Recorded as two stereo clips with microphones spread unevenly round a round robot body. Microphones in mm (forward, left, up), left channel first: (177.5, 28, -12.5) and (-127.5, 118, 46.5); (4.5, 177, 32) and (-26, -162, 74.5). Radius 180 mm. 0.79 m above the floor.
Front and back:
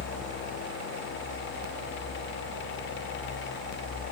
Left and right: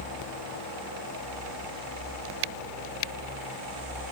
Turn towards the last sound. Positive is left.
No sound to turn to.